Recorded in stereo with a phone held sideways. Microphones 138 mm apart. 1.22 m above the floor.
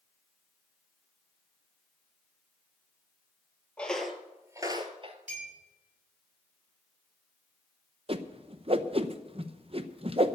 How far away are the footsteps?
About 1.7 m.